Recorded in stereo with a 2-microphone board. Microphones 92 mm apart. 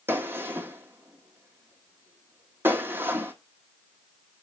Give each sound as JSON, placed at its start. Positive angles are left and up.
{"t": 0.1, "sound": "a gunshot", "side_deg": -25, "distance_m": 1.2}